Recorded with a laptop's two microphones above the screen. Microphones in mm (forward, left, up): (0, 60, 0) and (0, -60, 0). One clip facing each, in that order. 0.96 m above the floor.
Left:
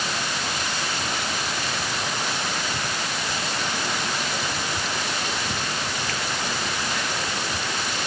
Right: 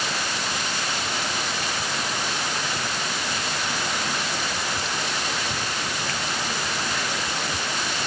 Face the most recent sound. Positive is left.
No sound to turn to.